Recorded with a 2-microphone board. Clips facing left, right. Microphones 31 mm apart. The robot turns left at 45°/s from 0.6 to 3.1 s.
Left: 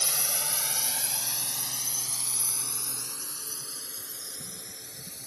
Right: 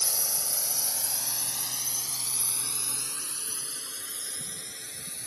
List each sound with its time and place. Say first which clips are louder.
0.0 s a drone: left 2 dB; 70° left (ahead or behind); by 5.3 s 80° right